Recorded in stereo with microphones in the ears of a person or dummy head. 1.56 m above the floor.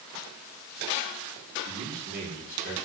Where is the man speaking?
45° right (ahead or behind), 5.5 m.